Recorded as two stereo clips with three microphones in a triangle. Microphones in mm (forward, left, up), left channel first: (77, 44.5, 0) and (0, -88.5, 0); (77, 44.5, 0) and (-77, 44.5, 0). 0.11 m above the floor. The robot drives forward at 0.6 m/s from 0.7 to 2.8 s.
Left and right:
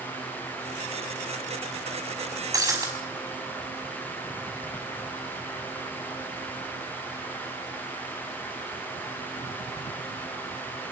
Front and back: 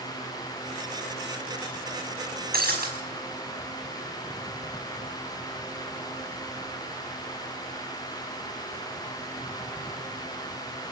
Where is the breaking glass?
170° left, 5.5 m.